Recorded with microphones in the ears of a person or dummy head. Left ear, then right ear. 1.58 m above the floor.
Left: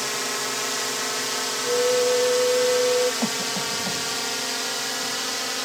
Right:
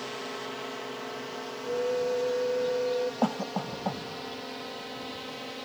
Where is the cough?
50° right (ahead or behind).